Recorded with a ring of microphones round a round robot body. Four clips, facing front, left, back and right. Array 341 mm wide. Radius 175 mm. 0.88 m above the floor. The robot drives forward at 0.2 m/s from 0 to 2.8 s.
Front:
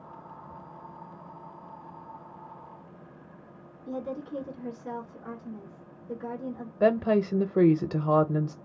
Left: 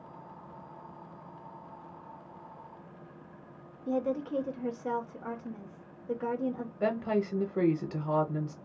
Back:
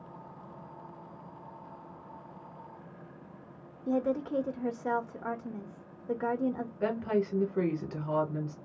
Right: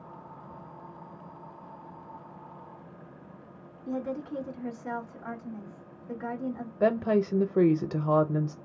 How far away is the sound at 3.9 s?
About 1.2 m.